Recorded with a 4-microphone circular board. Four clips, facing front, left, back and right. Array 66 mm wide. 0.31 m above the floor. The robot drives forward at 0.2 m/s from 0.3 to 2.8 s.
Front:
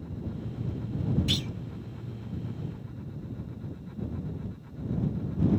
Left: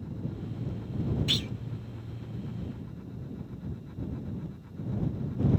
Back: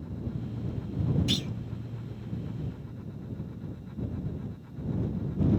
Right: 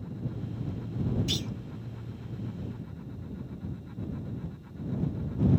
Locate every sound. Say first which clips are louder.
1.3 s a clunk: left 1 dB, back 1 dB; 80° left, 0.6 m; by 1.5 s 90° left, 0.6 m